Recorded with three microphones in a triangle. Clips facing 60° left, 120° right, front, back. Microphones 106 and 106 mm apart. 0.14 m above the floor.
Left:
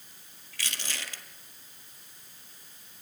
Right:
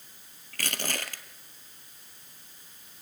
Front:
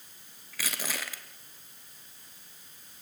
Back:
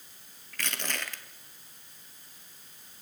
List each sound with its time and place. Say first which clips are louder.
0.5 s crushing: right 6 dB, even; 85° right, 1.6 m